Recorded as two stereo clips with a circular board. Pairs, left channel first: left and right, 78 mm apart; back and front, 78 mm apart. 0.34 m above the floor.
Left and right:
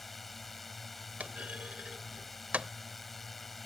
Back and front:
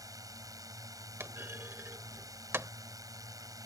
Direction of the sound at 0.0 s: Straight ahead.